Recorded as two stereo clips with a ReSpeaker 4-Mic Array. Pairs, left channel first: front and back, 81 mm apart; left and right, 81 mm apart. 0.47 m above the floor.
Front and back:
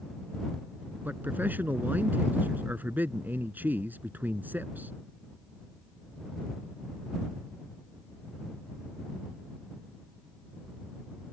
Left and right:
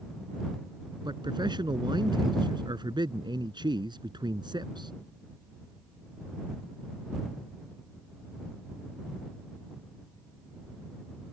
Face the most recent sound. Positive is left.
turn(degrees=-115)